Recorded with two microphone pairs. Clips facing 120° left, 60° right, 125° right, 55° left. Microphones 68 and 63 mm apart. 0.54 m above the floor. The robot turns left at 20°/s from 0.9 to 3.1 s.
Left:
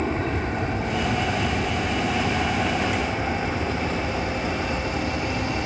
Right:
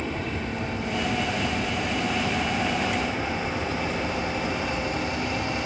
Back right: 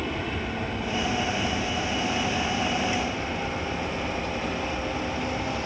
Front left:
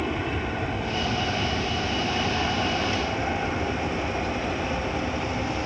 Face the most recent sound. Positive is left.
turn(degrees=70)